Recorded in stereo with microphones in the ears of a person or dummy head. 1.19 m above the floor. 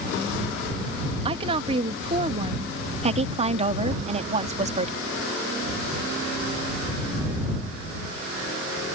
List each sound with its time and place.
1.2 s a woman speaking: 30° right (ahead or behind)
3.0 s a woman speaking: 35° right (ahead or behind)